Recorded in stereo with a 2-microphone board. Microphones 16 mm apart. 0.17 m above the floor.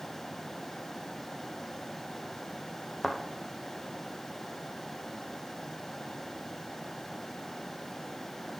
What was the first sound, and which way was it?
A thud, 5° left (ahead or behind).